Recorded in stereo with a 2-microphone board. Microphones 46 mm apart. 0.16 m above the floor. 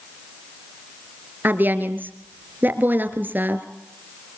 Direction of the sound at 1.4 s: 45° right (ahead or behind).